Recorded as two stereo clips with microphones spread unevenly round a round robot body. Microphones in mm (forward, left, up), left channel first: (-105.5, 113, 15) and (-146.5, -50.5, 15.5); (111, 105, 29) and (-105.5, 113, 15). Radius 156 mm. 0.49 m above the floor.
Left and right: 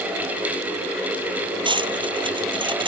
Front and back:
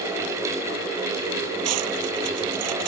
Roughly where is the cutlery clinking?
Behind.